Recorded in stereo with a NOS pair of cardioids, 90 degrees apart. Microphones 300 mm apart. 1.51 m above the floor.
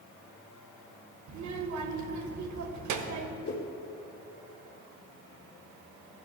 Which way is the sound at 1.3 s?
70° right.